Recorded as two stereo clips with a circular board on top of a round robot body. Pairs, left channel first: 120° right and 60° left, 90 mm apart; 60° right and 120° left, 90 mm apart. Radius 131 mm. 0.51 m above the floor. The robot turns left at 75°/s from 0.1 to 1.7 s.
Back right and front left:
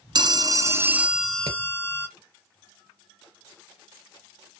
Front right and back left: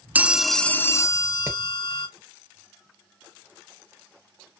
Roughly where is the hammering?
Ahead left.